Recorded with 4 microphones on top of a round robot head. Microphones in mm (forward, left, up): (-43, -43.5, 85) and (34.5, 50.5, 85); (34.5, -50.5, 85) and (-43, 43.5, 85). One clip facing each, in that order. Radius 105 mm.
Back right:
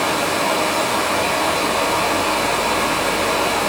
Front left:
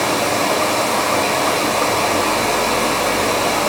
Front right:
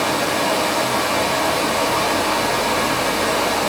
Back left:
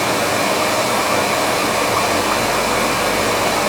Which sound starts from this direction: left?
Running water, at 0.0 s.